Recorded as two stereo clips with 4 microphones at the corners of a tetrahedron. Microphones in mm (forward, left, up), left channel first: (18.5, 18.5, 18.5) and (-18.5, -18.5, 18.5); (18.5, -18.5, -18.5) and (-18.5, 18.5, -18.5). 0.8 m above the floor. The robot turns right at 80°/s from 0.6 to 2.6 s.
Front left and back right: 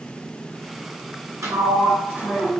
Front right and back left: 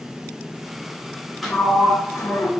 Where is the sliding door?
135° right, 0.7 m; by 2.5 s 50° right, 0.7 m.